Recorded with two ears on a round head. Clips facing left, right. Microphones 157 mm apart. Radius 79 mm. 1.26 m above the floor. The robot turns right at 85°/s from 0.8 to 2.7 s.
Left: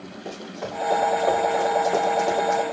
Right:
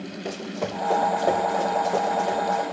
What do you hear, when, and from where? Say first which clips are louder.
0.2 s running footsteps: right 3 dB; 65° right (ahead or behind), 4.5 m; by 2.6 s 65° left (ahead or behind), 3 m